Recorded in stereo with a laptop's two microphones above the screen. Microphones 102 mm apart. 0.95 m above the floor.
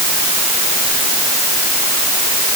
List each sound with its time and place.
Only background noise.